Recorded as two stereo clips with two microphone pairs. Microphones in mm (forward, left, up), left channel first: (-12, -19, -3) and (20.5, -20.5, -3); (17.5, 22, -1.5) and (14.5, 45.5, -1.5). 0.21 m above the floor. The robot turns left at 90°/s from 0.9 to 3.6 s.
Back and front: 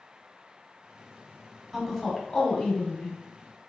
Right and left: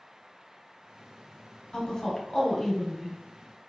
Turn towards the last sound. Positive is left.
turn(degrees=110)